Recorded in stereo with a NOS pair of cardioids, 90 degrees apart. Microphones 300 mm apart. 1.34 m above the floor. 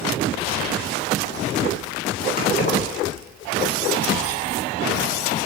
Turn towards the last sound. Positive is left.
turn(degrees=30)